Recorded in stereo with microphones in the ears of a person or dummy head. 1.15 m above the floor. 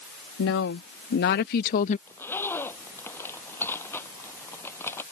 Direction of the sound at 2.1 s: 10° left (ahead or behind).